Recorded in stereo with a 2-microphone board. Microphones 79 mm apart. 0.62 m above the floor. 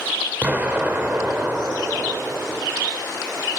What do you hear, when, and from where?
0.4 s an explosion: 25° right (ahead or behind), 2 m